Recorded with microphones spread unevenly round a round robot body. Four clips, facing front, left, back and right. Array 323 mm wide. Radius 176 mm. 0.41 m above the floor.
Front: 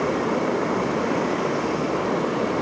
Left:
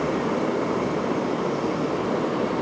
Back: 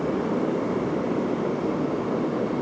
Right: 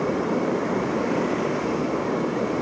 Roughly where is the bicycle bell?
No bicycle bell in this recording.